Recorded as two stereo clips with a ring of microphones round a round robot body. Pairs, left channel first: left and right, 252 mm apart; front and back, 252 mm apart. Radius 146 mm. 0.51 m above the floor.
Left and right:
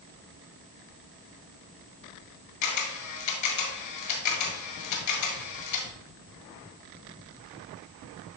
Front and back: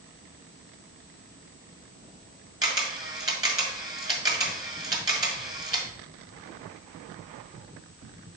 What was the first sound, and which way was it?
A camera shutter, 105° left.